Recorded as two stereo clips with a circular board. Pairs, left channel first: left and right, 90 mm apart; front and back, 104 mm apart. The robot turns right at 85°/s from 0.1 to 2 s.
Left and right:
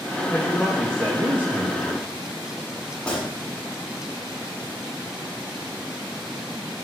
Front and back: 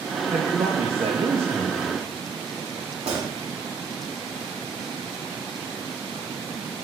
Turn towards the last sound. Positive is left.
turn(degrees=170)